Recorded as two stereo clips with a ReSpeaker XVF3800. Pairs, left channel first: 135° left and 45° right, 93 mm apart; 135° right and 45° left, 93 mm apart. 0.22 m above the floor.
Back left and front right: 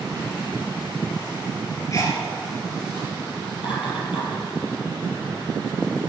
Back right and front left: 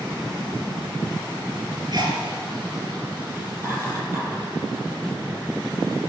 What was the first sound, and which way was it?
A sneeze, 80° left.